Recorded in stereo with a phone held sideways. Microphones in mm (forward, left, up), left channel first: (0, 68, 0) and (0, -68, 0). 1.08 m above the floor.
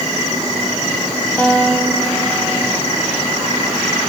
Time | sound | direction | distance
1.4 | a guitar | 10° left (ahead or behind) | 8 m